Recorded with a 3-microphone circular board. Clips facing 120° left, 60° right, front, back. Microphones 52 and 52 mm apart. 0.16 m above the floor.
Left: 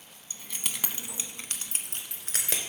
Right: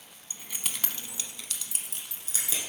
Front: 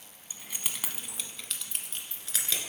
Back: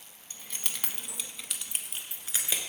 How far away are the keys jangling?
About 0.7 m.